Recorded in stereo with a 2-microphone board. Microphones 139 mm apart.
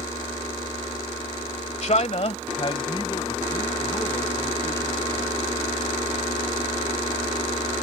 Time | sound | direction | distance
1.8 | a man speaking | 55° left (ahead or behind) | ?